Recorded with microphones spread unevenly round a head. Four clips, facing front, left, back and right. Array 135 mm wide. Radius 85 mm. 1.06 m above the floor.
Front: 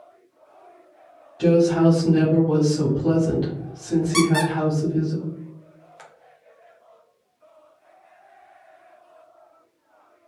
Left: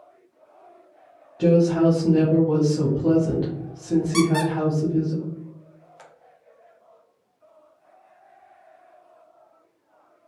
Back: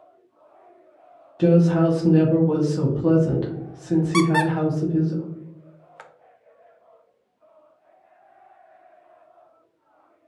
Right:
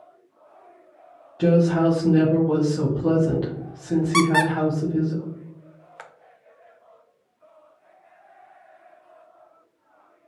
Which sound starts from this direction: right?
A squeak, at 4.1 s.